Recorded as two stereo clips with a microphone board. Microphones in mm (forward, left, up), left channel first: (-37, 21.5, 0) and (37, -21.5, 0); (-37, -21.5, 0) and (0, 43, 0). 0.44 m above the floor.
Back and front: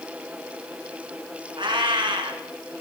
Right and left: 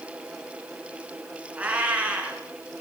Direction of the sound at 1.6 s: 10° right.